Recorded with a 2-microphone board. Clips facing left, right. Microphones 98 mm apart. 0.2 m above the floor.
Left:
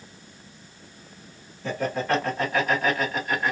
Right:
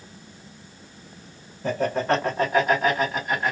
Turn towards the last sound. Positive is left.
turn(degrees=-5)  # may be behind; listen again after turning